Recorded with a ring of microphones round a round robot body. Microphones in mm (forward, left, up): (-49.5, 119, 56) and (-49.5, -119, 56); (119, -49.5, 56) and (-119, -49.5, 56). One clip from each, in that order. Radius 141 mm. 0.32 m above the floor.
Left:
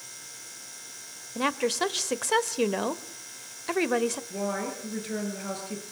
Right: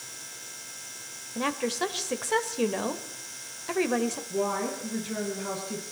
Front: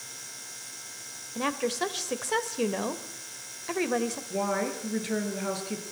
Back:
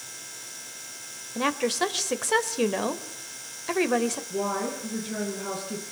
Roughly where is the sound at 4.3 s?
Ahead left.